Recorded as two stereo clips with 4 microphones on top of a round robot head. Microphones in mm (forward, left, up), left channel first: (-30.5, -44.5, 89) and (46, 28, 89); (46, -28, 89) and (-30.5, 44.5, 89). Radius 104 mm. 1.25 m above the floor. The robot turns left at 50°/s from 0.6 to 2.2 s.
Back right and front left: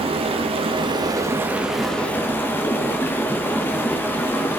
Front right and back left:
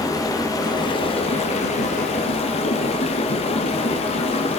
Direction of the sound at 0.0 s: 15° left.